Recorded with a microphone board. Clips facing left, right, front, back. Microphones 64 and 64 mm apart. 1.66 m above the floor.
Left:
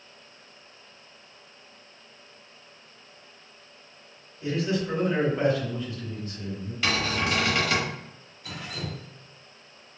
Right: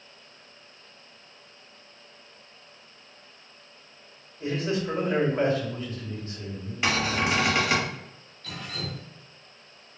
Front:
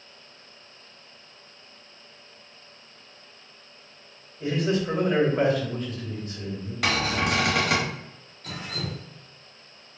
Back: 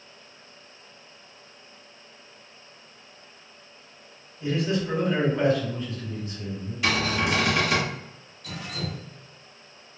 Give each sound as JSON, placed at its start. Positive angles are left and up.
{"t": 4.4, "sound": "a man speaking", "azimuth_deg": -40, "distance_m": 1.8}
{"t": 6.8, "sound": "a cupboard door", "azimuth_deg": -25, "distance_m": 1.1}
{"t": 8.4, "sound": "dripping", "azimuth_deg": 20, "distance_m": 0.8}